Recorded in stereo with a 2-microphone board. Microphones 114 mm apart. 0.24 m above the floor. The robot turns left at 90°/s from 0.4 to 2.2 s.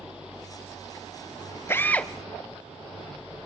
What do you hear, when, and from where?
1.7 s a drill: 20° left (ahead or behind), 0.6 m; by 2.1 s 5° left (ahead or behind), 0.6 m